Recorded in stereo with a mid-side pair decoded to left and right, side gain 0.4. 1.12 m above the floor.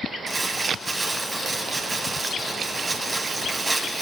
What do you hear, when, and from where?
0.3 s crumpling: 25° right, 6.5 m